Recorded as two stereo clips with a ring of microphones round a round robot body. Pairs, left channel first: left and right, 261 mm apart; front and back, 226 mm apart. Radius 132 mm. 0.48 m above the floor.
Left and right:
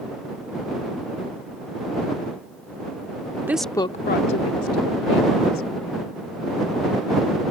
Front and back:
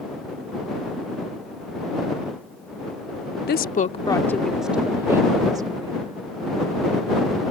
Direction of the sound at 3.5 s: 10° right.